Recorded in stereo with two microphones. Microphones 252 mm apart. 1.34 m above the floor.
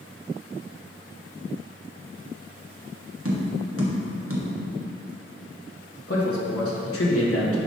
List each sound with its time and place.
3.2 s tapping: 60° right (ahead or behind), 1.1 m
6.1 s a man speaking: 60° left (ahead or behind), 1.4 m